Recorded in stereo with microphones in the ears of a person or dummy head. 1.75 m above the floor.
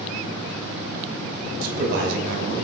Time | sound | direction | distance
1.6 | a man speaking | 55° right (ahead or behind) | 0.8 m